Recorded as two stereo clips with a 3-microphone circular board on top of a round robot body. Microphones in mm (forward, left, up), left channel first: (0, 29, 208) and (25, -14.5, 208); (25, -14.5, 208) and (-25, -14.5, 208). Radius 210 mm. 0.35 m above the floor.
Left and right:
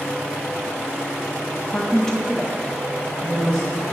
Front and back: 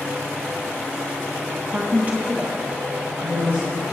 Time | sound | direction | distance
1.7 | a woman speaking | 160° left | 1.3 m